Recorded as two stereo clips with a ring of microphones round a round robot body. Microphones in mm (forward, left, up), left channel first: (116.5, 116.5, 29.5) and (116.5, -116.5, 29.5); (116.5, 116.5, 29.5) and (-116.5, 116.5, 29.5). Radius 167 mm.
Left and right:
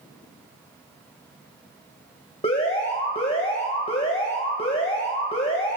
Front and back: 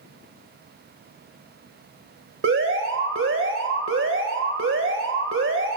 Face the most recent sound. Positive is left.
turn(degrees=160)